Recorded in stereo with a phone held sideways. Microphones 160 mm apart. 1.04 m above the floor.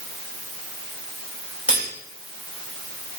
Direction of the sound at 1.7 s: 10° right (ahead or behind).